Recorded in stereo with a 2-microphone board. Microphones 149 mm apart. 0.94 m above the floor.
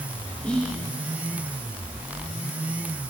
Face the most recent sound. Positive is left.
turn(degrees=10)  # may be behind; listen again after turning